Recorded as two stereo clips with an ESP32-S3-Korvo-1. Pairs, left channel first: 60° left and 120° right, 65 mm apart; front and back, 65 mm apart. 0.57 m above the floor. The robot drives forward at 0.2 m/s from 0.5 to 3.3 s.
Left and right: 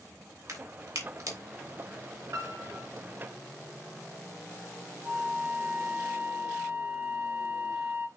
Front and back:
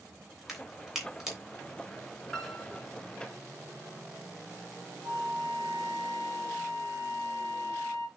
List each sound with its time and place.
0.5 s a crack: 95° right, 3.5 m; by 1.4 s 100° right, 3.5 m
2.3 s a piano: 80° right, 3 m; by 2.9 s 85° right, 3 m
5.0 s a flute: 170° right, 1.6 m